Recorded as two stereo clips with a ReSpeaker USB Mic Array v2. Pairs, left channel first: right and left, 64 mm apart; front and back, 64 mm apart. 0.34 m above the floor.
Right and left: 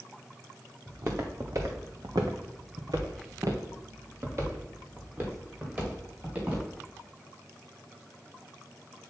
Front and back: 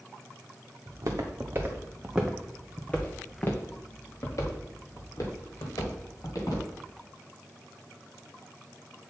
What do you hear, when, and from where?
0.9 s footsteps: 145° left, 1.8 m; by 6.7 s 25° left, 4.5 m